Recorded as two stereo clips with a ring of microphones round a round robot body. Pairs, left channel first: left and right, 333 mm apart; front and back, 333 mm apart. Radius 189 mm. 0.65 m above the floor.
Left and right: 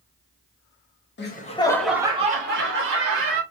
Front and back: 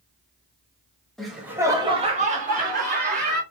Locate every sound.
1.2 s laughter: 85° left, 0.8 m; by 3.4 s 120° right, 1.3 m